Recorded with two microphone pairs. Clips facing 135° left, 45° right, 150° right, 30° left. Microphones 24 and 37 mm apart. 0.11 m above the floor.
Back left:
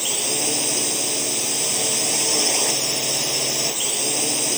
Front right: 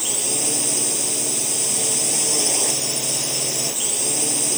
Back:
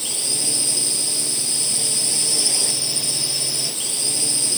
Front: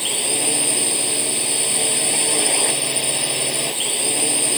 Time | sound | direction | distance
0.0 | a drone | 70° left | ?